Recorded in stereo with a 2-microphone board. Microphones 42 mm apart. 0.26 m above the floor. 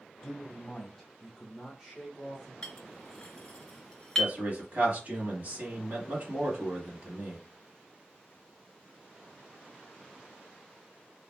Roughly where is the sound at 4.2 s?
Right.